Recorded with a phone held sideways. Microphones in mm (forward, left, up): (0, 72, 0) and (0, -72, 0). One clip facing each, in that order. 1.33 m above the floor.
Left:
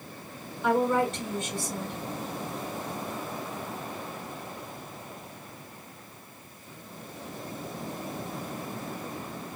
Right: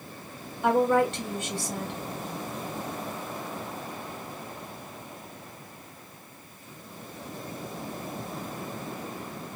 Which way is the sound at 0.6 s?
75° right (ahead or behind).